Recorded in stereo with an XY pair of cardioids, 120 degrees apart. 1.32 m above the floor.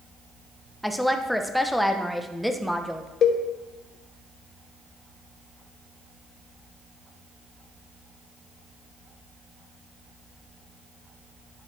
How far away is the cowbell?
About 0.8 m.